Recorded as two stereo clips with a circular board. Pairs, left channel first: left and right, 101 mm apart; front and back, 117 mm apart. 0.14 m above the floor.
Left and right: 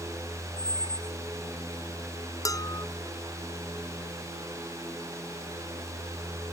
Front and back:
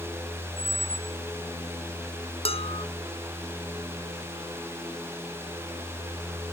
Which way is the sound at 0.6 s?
140° right.